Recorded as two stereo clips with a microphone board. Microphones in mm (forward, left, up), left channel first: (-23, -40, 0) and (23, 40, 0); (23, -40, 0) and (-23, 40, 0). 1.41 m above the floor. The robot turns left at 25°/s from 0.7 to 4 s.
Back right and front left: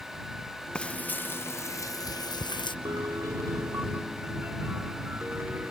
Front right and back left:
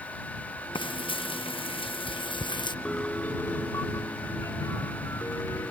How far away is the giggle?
No giggle in this recording.